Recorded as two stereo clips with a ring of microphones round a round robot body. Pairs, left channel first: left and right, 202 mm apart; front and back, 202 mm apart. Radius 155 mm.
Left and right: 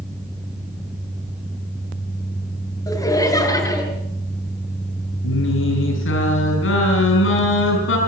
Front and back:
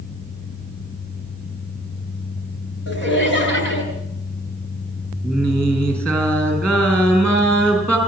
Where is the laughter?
20° left, 9 m.